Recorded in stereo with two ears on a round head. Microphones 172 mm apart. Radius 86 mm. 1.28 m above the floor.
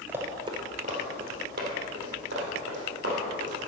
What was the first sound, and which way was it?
Running footsteps, 10° right (ahead or behind).